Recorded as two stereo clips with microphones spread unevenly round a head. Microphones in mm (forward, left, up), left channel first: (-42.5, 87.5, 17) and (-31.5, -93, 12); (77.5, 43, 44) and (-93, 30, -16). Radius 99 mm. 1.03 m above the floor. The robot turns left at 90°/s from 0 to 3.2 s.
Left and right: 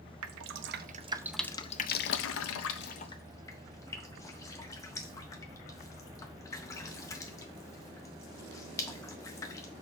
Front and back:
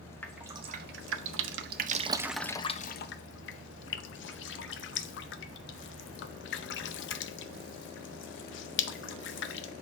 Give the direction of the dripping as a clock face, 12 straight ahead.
2 o'clock.